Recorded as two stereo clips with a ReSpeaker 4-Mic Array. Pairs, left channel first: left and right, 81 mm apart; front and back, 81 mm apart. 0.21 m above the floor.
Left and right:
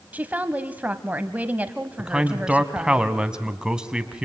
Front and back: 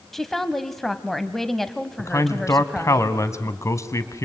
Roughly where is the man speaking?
Ahead.